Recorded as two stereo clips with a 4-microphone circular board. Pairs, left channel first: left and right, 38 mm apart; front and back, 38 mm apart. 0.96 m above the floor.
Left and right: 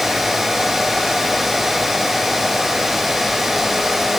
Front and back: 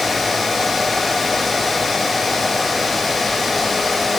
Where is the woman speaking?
I don't hear a woman speaking.